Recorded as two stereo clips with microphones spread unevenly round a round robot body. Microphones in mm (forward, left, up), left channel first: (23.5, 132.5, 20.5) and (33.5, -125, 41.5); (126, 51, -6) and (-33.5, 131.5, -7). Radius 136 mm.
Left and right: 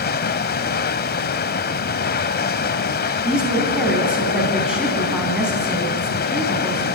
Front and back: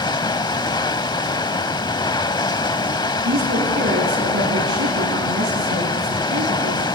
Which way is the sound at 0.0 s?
40° left.